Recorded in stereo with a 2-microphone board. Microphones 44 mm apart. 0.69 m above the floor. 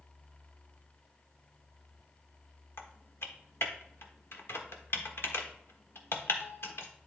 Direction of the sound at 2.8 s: 70° left (ahead or behind).